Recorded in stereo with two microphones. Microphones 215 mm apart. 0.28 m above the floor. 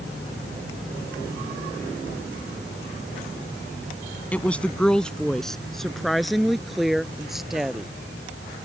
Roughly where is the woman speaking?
Centre.